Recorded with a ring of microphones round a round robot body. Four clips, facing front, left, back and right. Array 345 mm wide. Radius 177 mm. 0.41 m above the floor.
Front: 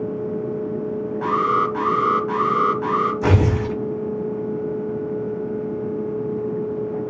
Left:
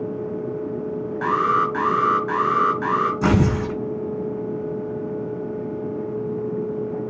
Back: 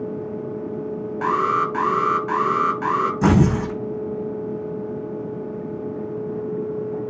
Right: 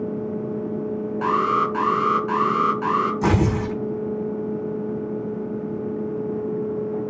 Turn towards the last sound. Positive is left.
turn(degrees=170)